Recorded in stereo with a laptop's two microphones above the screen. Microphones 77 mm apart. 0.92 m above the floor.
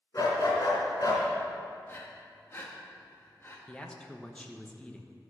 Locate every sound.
0.1 s a dog barking: 50° left (ahead or behind), 3 m
1.9 s breathing: 30° left (ahead or behind), 1.1 m
3.7 s a man speaking: 15° left (ahead or behind), 0.9 m